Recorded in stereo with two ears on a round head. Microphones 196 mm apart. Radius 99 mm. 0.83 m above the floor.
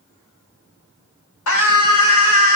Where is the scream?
70° left (ahead or behind), 4 m.